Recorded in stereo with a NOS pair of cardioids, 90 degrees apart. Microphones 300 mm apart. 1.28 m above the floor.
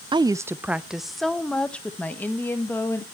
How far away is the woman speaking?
About 0.5 m.